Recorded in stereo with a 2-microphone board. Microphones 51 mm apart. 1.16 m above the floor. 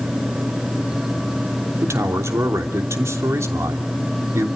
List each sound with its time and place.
1.8 s a man speaking: 80° right, 3 m